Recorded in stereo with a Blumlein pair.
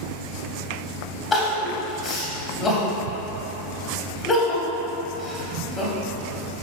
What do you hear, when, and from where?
1.3 s crying: 20° left, 0.9 m